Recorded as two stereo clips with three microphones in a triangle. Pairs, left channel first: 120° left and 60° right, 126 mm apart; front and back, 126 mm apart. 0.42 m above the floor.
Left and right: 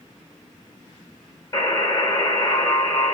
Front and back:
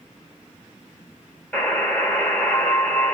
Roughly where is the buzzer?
Left.